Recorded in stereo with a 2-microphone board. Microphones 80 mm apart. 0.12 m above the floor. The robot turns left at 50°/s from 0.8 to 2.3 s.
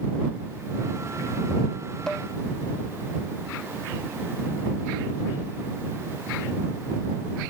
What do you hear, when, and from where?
2.1 s dishes clattering: 10° left (ahead or behind); by 2.3 s 20° left (ahead or behind)